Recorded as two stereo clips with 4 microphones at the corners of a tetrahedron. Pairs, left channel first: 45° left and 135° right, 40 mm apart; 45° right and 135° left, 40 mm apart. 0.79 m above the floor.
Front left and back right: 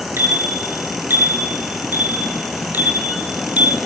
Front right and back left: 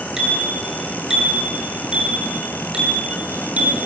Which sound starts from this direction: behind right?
A bicycle bell, at 0.2 s.